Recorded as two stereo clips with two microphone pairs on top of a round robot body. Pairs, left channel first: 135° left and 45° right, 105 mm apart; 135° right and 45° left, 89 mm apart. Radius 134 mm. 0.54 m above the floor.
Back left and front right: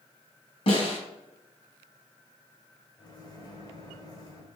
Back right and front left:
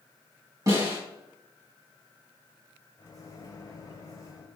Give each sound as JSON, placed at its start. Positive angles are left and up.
{"t": 0.7, "sound": "a snare drum", "azimuth_deg": 105, "distance_m": 2.5}
{"t": 3.0, "sound": "a microwave", "azimuth_deg": -175, "distance_m": 2.0}